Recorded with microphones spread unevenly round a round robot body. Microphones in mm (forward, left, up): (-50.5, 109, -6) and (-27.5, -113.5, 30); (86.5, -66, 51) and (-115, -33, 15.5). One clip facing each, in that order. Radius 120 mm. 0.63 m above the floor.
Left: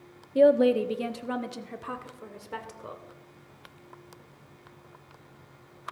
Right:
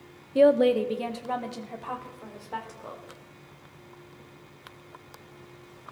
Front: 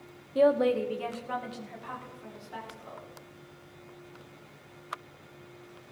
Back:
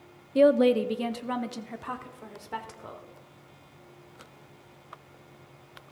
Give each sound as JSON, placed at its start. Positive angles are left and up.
{"t": 0.3, "sound": "a woman speaking", "azimuth_deg": -175, "distance_m": 0.7}